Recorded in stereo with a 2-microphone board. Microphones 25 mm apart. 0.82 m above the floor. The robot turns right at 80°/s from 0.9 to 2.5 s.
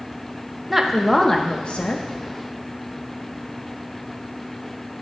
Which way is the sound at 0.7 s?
5° right.